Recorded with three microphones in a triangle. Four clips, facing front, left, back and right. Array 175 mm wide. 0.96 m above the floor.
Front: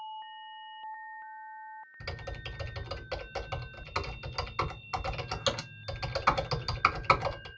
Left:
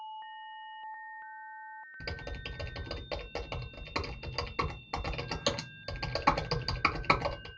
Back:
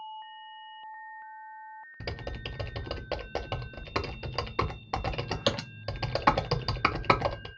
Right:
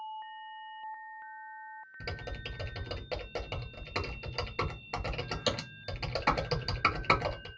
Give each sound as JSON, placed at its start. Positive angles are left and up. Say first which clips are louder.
{"t": 2.0, "sound": "typing on a keyboard", "louder": "right 1 dB, back 5 dB", "azimuth_deg": 180, "distance_m": 0.6}